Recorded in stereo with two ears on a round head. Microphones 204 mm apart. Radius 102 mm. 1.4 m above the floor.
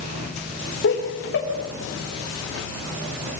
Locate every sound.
0.8 s laughter: 55° left (ahead or behind), 3.5 m